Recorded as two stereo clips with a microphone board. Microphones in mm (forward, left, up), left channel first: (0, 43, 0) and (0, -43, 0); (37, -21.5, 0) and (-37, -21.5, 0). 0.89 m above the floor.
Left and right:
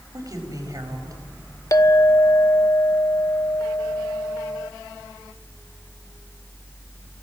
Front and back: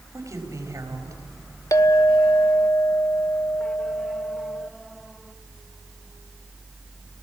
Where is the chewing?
I don't hear chewing.